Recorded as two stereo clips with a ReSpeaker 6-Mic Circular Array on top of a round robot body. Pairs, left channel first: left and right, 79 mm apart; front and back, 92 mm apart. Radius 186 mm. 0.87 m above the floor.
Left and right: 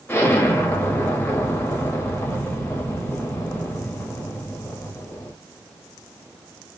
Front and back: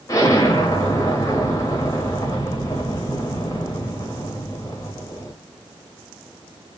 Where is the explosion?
35° left, 1.2 m.